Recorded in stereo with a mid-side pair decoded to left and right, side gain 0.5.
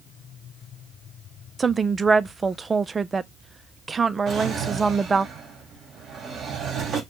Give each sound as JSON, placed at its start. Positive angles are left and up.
{"t": 1.6, "sound": "a woman speaking", "azimuth_deg": -30, "distance_m": 0.5}
{"t": 4.3, "sound": "a drawer", "azimuth_deg": -50, "distance_m": 3.0}